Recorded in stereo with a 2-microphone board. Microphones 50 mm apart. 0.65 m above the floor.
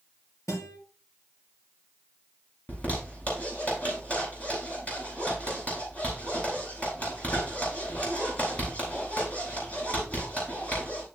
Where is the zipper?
30° left (ahead or behind), 9.5 m.